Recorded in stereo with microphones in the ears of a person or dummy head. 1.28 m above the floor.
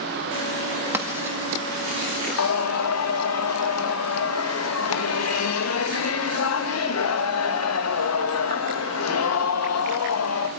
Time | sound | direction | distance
0.9 | writing | 20° right (ahead or behind) | 1.8 m
2.4 | singing | 80° left | 1.2 m